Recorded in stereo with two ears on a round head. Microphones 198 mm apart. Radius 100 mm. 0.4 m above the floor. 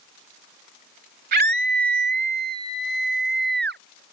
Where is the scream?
45° right (ahead or behind).